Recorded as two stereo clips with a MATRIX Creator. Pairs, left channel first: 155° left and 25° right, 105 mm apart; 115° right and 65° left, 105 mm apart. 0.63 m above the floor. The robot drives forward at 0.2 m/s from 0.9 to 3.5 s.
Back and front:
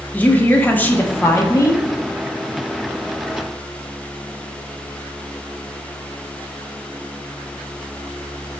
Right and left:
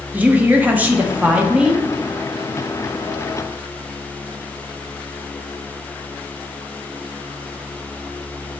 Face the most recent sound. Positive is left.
turn(degrees=160)